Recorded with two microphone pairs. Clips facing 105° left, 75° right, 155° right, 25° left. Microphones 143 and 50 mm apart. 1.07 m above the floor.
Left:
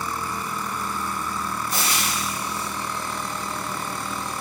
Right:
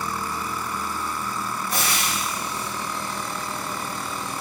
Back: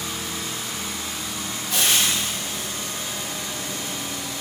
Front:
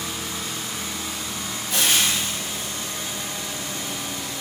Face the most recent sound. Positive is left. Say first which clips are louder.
# right 2 dB, even
turn(degrees=-60)